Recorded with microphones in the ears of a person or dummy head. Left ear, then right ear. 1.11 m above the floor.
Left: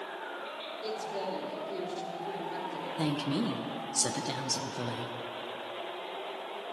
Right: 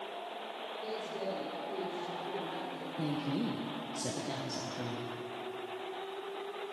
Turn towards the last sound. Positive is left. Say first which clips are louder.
# left 4 dB
turn(degrees=45)  # may be behind; listen again after turning